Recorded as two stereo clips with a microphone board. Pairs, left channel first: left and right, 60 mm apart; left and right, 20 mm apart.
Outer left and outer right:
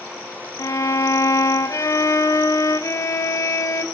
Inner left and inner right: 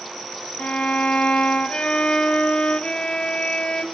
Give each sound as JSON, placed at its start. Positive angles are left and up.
{"t": 0.6, "sound": "a violin", "side_deg": 60, "distance_m": 1.1}